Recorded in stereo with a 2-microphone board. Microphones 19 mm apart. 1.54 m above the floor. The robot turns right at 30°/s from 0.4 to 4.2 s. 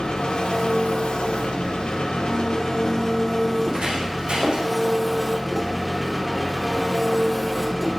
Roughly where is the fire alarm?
I don't hear a fire alarm.